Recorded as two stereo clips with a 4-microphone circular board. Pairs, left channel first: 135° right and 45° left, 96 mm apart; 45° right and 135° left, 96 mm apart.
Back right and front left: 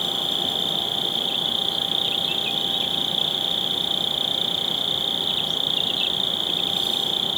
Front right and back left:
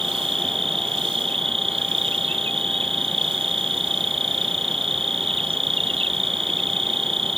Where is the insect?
135° left.